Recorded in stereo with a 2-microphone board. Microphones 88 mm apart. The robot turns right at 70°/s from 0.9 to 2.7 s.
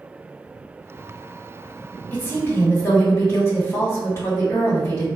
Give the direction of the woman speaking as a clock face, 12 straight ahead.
11 o'clock.